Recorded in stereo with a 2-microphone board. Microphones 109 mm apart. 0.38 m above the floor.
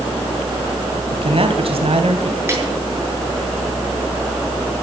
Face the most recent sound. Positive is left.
turn(degrees=-20)  # may be behind; listen again after turning